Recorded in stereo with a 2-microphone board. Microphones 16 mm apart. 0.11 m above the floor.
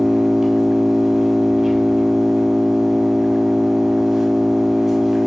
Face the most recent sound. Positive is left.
turn(degrees=-20)  # may be behind; listen again after turning